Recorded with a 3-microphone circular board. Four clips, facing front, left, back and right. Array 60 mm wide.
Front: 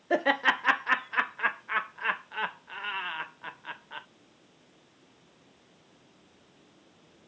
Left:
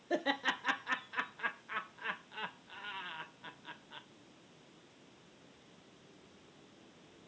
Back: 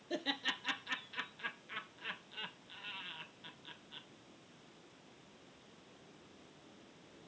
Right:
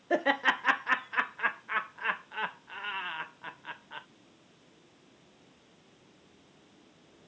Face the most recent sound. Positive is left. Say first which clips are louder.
# right 7 dB, front 15 dB
turn(degrees=-30)